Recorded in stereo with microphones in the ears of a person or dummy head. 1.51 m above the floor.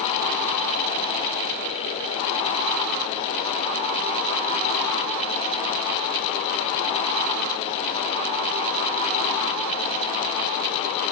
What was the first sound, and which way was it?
Only background noise.